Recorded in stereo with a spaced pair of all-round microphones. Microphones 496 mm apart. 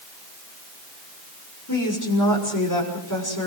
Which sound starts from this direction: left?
A woman speaking, at 1.7 s.